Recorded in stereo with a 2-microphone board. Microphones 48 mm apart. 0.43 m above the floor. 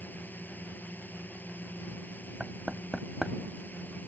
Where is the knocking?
10° right (ahead or behind).